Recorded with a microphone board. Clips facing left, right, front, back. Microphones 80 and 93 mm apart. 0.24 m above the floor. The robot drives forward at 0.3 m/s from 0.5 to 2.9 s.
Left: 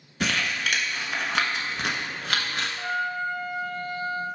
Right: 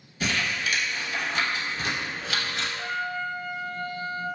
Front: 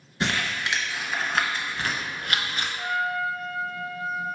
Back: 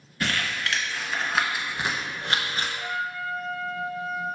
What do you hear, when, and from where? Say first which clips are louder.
0.2 s crumpling: left 1 dB, front 1 dB; 65° left, 0.6 m; by 2.7 s 130° left, 0.7 m
2.8 s a trumpet: left 4 dB, front 4 dB; 85° left, 0.8 m; by 4.2 s 90° left, 0.8 m